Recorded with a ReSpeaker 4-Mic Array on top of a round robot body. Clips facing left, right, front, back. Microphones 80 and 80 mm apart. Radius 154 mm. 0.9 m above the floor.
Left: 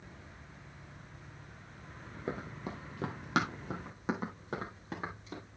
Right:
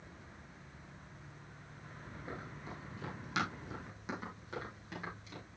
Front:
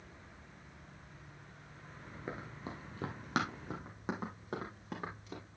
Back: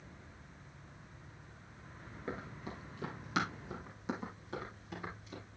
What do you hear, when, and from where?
2.3 s running footsteps: 75° left, 1.4 m; by 5.4 s 35° left, 5 m